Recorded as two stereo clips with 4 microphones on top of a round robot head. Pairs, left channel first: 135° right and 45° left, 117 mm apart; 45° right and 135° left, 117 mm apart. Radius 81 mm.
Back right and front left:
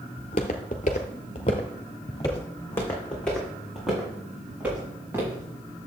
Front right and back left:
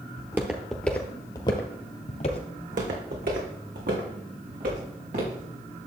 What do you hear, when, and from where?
0.2 s footsteps: 165° right, 1.0 m; by 2.5 s 70° right, 1.4 m
2.6 s footsteps: 160° left, 3 m; by 5.9 s 110° left, 5.5 m